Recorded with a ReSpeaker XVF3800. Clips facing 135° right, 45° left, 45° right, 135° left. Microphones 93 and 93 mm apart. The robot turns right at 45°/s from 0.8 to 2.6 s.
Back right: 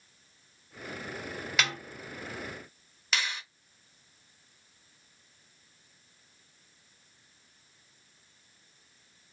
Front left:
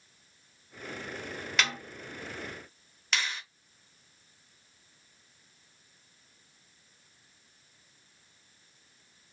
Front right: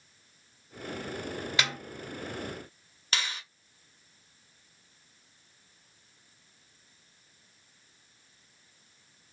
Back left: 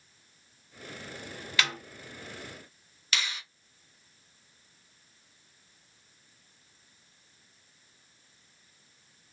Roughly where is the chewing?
No chewing in this recording.